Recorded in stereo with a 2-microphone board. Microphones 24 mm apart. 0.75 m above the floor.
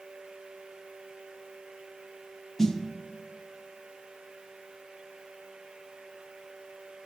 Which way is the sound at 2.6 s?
15° left (ahead or behind).